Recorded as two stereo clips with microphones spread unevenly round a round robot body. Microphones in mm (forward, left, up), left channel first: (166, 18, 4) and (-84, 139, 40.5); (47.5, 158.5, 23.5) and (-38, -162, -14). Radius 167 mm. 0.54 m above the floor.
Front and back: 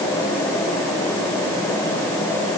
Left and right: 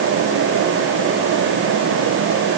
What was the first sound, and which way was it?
Only background noise.